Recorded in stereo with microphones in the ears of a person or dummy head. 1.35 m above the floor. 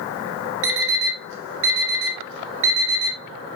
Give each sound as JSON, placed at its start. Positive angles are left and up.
{"t": 0.6, "sound": "an alarm clock", "side_deg": -65, "distance_m": 1.3}